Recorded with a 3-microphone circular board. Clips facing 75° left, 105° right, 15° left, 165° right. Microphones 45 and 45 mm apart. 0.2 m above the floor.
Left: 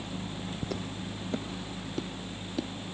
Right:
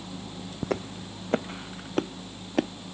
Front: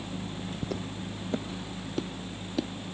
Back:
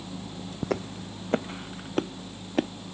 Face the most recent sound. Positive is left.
turn(degrees=-130)